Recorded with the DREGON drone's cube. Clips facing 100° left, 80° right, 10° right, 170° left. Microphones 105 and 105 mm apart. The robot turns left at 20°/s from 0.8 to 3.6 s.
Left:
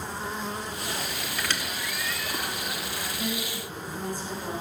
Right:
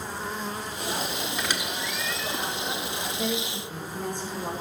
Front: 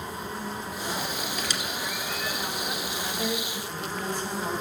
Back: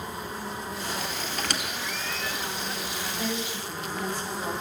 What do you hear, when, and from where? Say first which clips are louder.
1.4 s a squeak: right 2 dB, even; 150° right, 1.4 m; by 2.4 s 170° right, 1.4 m
3.2 s a woman speaking: right 3 dB, even; 80° right, 4.5 m; by 4.5 s 90° right, 4.5 m